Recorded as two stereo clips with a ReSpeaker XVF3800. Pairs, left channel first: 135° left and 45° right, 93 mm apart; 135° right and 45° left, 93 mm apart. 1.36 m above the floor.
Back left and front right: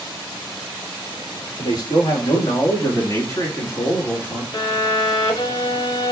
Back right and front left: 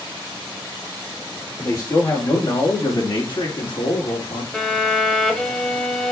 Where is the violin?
145° left, 1.6 m.